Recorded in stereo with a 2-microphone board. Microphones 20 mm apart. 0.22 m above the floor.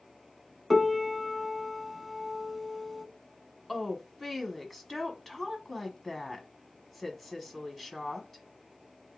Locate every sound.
0.7 s a piano: 10° left (ahead or behind), 0.5 m
3.7 s a woman speaking: 10° left (ahead or behind), 1.3 m